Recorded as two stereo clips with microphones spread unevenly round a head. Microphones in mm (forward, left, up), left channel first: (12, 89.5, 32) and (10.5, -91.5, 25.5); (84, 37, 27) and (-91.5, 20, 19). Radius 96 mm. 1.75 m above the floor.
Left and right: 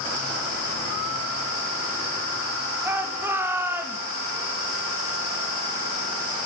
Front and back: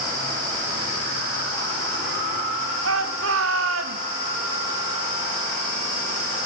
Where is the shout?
170° right, 3.5 m.